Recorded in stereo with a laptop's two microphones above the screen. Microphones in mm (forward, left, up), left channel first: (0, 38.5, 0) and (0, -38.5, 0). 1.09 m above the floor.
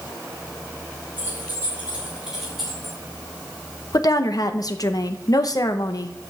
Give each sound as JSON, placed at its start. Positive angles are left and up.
{"t": 1.2, "sound": "keys jangling", "side_deg": -25, "distance_m": 2.5}
{"t": 3.9, "sound": "a woman speaking", "side_deg": 55, "distance_m": 0.7}